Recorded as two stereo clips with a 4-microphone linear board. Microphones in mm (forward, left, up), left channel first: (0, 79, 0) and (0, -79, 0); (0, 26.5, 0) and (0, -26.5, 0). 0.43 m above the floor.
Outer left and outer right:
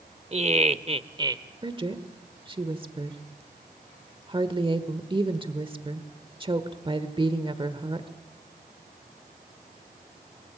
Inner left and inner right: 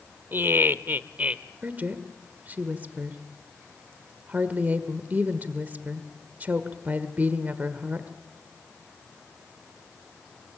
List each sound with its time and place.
0.3 s laughter: 40° right (ahead or behind), 1.1 m; by 1.4 s 20° right (ahead or behind), 1.1 m
1.6 s a woman speaking: 30° right (ahead or behind), 1.3 m